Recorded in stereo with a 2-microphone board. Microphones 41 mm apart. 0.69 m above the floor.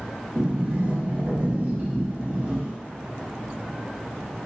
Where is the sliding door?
45° right (ahead or behind), 1.1 m.